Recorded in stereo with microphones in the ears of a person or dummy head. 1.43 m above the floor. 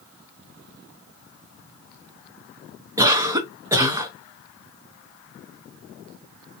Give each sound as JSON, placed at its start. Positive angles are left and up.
{"t": 3.0, "sound": "a cough", "side_deg": -20, "distance_m": 0.7}